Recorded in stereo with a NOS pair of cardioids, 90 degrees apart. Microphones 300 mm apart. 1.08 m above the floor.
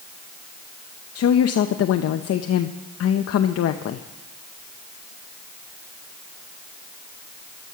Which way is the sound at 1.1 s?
55° left.